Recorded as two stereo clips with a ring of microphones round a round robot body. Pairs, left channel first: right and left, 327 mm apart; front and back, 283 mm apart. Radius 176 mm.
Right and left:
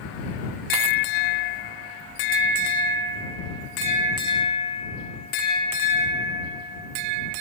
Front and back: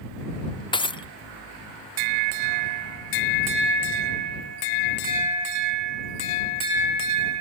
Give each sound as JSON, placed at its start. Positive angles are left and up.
{"t": 0.7, "sound": "breaking glass", "azimuth_deg": 75}